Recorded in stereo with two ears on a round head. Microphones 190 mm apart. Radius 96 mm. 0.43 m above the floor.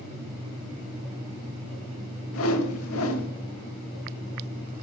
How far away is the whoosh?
About 0.8 m.